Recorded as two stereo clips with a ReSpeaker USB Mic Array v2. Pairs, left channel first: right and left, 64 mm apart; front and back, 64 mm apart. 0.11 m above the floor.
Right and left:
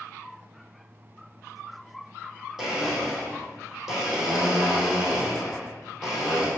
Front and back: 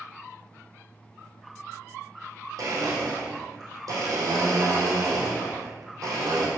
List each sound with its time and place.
2.6 s a blender: 175° left, 3 m